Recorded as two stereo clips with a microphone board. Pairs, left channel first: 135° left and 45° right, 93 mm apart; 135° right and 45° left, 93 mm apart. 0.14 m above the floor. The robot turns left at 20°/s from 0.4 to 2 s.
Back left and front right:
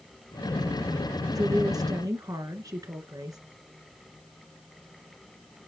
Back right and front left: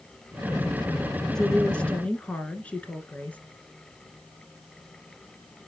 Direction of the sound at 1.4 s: 50° right.